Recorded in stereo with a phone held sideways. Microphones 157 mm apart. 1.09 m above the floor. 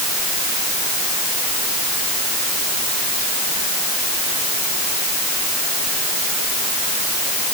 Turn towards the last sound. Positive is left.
No sound to turn to.